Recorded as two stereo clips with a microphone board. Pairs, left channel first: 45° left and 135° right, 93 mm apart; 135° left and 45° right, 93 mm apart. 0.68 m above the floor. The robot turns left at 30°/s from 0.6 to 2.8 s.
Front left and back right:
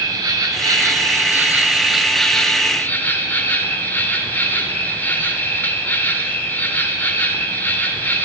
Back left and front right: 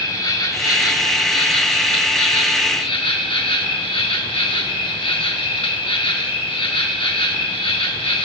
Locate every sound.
0.0 s an insect: straight behind, 1.1 m; by 8.3 s 115° left, 1.1 m